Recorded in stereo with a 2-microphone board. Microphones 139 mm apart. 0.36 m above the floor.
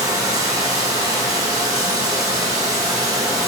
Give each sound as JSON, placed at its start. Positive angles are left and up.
{"t": 0.0, "sound": "running water", "side_deg": -25, "distance_m": 1.5}